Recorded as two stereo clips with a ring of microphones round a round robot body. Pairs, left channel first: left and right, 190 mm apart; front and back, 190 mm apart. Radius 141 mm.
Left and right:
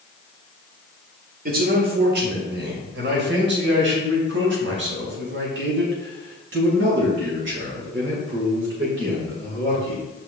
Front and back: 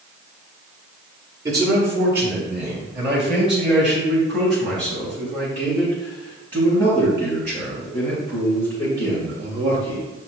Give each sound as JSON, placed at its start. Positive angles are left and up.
{"t": 1.4, "sound": "a man speaking", "azimuth_deg": -110, "distance_m": 1.8}